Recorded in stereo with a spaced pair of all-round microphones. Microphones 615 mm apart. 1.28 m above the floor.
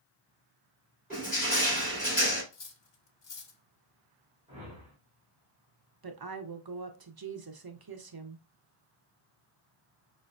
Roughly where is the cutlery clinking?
Left.